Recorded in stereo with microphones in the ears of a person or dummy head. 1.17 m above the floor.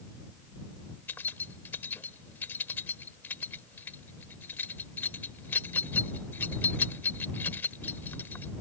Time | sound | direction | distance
1.1 | keys jangling | 10° left (ahead or behind) | ?